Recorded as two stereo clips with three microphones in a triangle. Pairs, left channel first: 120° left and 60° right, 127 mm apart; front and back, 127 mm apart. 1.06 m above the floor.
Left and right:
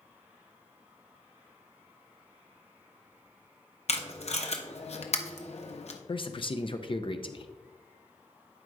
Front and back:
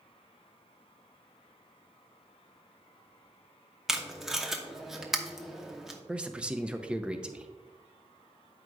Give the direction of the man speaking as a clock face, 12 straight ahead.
9 o'clock.